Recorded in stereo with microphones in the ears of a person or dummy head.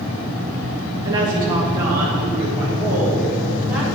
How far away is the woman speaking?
About 1.5 m.